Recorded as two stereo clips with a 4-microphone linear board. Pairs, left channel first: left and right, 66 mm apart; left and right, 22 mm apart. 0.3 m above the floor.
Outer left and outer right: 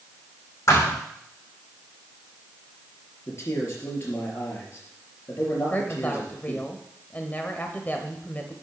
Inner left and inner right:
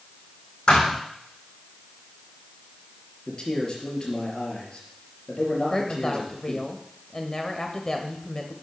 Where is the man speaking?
45° left (ahead or behind), 4.5 m.